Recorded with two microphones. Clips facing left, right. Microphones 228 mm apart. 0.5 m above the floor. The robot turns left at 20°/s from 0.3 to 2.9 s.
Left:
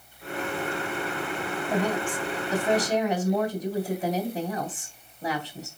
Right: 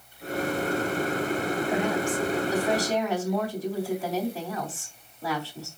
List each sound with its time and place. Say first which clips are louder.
1.7 s a woman speaking: left 2 dB; 40° left (ahead or behind), 3 m; by 5.7 s 20° left (ahead or behind), 3 m